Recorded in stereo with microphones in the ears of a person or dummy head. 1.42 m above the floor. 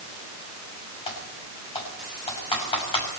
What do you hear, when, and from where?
1.1 s typing on a keyboard: 25° left (ahead or behind), 6 m